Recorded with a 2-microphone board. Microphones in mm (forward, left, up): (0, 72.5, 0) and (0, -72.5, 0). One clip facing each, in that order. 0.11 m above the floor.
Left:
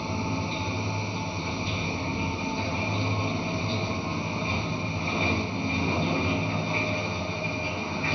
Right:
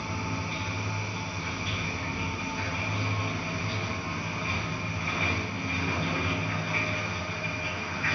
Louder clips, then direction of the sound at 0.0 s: Left 4 dB; 25° left (ahead or behind).